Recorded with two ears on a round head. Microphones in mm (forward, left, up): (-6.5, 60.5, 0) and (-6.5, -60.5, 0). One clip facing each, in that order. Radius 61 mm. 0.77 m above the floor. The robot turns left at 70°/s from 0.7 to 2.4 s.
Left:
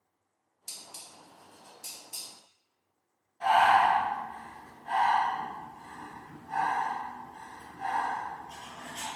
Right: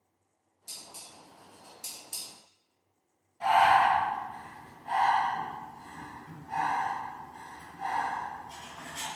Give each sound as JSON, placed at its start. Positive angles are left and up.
{"t": 0.7, "sound": "dishes clattering", "side_deg": 60, "distance_m": 0.7}
{"t": 3.4, "sound": "breathing", "side_deg": -10, "distance_m": 1.2}